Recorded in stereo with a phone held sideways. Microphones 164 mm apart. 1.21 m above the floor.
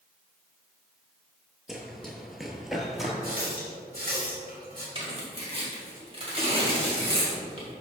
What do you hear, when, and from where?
1.7 s running footsteps: centre (ahead or behind), 1.3 m
3.2 s a running tap: 65° right (ahead or behind), 2.5 m
5.0 s tearing paper: 35° right (ahead or behind), 2 m